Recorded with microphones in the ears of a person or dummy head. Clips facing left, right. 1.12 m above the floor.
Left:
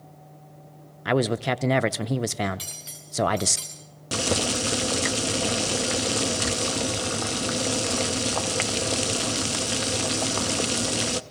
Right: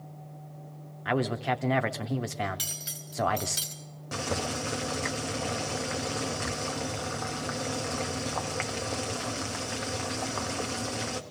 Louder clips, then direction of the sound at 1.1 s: Left 5 dB; 45° left (ahead or behind).